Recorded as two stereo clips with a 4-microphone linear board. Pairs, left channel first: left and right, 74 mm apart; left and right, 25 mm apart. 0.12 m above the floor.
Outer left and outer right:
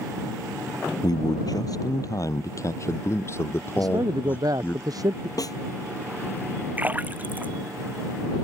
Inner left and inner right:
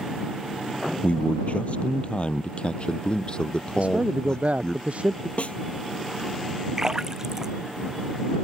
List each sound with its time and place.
1.0 s a man speaking: 65° left (ahead or behind); by 4.8 s 25° left (ahead or behind)
3.8 s a man speaking: 60° right (ahead or behind)
5.4 s a snare drum: 55° left (ahead or behind)
6.8 s a splash: 25° right (ahead or behind)